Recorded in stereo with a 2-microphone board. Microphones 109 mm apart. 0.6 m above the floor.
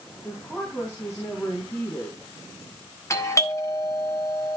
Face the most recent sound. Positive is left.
turn(degrees=30)  # may be behind; listen again after turning